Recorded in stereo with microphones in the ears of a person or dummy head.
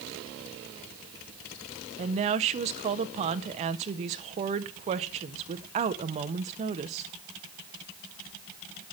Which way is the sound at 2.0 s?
35° right (ahead or behind).